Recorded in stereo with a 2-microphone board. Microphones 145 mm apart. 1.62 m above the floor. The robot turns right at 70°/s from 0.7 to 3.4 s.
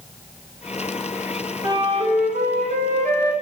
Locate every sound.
1.6 s a flute: 155° right, 0.7 m; by 3.3 s 40° right, 0.7 m